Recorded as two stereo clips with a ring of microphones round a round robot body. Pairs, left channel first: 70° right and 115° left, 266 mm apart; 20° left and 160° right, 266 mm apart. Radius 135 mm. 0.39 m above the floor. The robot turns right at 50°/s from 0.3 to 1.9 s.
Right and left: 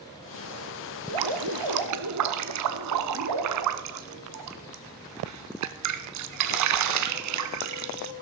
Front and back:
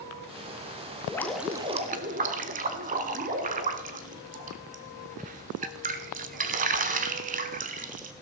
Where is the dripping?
100° left, 0.7 m; by 8.1 s 140° left, 0.7 m.